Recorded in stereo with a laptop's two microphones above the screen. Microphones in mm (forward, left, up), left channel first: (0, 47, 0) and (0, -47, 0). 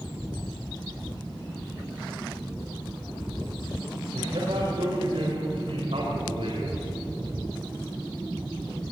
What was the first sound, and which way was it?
A man speaking, 85° right.